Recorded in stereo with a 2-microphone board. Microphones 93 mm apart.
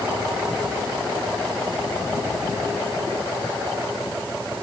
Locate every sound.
Only background noise.